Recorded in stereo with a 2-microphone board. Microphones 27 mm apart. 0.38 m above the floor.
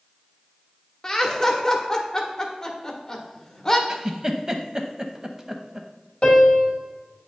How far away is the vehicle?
No vehicle in this recording.